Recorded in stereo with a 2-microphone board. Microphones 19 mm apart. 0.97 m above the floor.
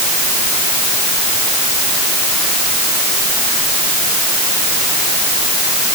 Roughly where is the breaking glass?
I don't hear breaking glass.